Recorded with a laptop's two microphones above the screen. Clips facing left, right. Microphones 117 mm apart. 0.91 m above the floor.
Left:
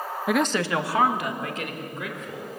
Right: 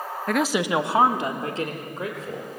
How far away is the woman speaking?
About 0.6 m.